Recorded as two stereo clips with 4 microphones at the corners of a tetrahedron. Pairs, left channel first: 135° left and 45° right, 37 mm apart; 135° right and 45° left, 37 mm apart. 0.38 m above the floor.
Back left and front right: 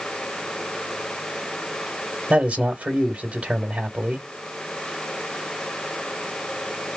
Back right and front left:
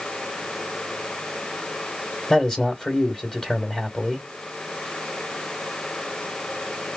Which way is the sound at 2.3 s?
70° right.